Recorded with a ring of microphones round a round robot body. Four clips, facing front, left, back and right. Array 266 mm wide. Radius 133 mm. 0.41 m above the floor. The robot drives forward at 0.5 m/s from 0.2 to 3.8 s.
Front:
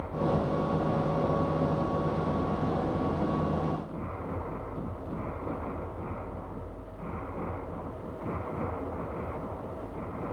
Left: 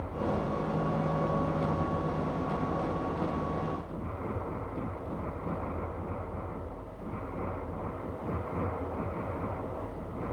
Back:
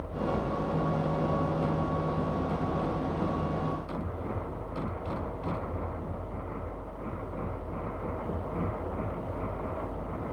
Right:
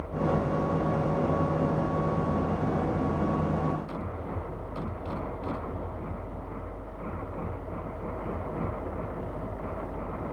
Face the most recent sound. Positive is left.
No sound to turn to.